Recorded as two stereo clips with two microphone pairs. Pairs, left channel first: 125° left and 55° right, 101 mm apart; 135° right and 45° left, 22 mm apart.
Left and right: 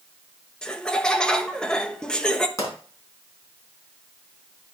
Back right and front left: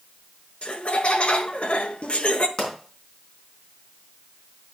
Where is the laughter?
160° right, 0.8 m.